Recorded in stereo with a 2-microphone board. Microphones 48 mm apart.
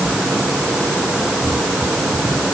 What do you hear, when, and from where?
Only background noise.